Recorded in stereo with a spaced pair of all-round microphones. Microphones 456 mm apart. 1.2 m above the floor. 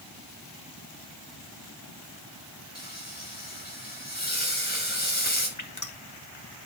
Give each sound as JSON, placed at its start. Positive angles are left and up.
{"t": 2.8, "sound": "frying", "side_deg": 20, "distance_m": 6.5}
{"t": 5.6, "sound": "dripping", "side_deg": 40, "distance_m": 1.9}